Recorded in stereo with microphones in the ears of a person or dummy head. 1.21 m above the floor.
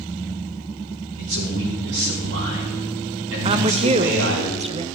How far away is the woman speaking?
About 0.6 m.